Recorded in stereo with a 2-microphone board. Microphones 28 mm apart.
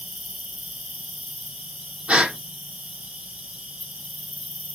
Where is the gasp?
50° right (ahead or behind), 5 m.